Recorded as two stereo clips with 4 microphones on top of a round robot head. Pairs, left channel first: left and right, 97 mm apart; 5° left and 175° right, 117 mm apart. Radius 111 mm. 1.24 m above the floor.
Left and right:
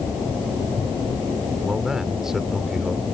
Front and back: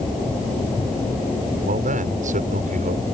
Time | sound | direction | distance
1.6 | a man speaking | 175° right | ?